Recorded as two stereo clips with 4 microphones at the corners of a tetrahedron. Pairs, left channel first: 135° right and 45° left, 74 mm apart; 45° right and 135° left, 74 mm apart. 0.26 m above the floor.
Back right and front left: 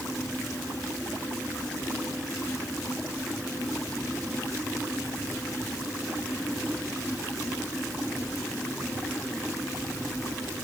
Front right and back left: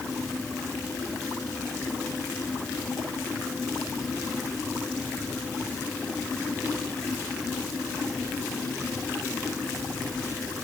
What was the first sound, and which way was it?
Only background noise.